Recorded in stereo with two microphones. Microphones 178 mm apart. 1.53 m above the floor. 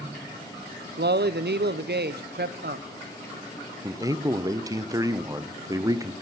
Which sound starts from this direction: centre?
A man speaking, at 3.8 s.